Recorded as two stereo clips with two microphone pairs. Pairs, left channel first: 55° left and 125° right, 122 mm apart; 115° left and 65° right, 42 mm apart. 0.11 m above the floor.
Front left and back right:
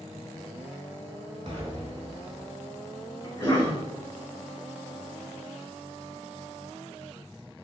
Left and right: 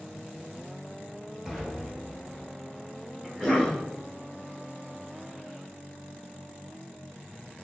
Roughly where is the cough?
Left.